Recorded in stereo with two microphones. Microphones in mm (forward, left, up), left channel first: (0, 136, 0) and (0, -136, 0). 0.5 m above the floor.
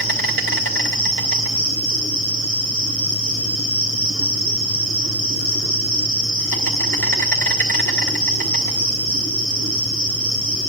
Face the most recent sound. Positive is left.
turn(degrees=50)  # may be behind; listen again after turning